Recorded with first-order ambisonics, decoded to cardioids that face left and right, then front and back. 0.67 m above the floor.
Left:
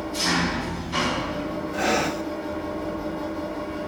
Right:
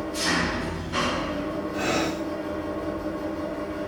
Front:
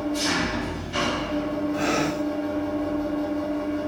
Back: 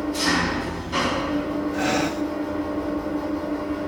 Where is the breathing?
130° left, 1.1 m.